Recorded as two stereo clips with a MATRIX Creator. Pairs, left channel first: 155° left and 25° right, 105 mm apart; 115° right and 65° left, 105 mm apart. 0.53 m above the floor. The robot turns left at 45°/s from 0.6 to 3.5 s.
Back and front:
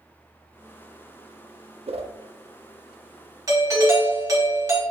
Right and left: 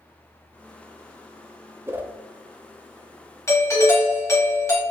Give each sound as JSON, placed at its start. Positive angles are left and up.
{"t": 1.9, "sound": "a whoosh", "azimuth_deg": 0, "distance_m": 0.5}
{"t": 3.5, "sound": "a doorbell", "azimuth_deg": -65, "distance_m": 1.3}